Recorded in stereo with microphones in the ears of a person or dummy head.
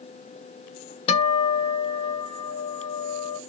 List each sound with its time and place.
1.1 s a guitar: 35° left (ahead or behind), 0.9 m